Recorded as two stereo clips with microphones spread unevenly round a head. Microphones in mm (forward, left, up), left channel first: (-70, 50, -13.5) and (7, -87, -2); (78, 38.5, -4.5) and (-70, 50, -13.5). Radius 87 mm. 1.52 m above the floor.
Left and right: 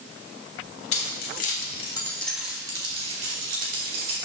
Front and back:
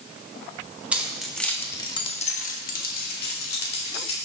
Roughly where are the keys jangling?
Left.